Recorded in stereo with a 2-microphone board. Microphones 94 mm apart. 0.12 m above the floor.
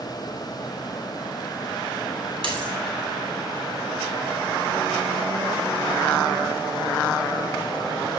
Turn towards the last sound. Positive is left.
turn(degrees=-60)  # may be behind; listen again after turning